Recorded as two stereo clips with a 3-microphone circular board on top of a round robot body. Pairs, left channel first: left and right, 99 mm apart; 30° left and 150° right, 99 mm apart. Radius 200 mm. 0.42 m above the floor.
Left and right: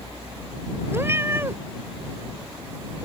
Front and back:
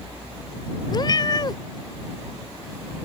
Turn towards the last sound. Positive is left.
turn(degrees=-20)